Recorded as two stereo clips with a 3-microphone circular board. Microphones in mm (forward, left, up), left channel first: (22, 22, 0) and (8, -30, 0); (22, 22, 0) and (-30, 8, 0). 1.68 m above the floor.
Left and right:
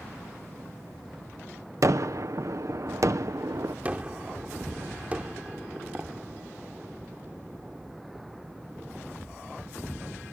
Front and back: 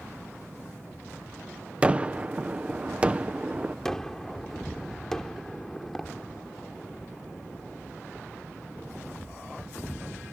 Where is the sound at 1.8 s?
100° right.